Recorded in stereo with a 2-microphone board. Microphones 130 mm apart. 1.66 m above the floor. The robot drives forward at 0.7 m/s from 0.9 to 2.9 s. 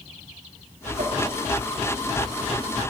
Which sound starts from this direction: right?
A whoosh, at 1.0 s.